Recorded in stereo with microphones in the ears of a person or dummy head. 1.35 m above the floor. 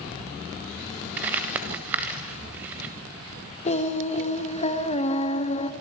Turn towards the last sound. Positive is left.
turn(degrees=35)  # may be behind; listen again after turning